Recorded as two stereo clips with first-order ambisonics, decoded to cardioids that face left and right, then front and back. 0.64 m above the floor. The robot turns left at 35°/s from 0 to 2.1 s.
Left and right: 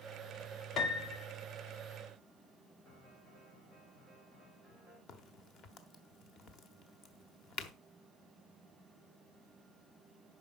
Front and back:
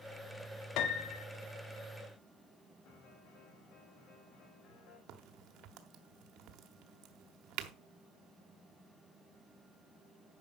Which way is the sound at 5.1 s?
140° left.